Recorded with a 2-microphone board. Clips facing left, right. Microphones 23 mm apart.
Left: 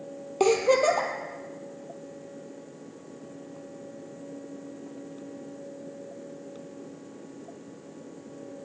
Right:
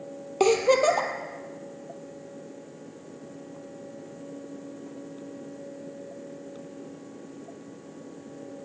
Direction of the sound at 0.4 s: 20° right (ahead or behind).